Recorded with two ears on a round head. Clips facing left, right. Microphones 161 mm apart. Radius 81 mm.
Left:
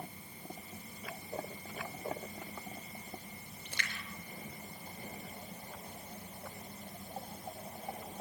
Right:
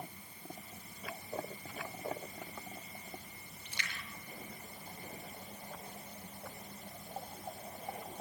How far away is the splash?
About 5.5 m.